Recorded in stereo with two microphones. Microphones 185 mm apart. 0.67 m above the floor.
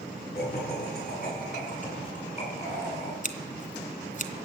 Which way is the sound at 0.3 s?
55° left (ahead or behind).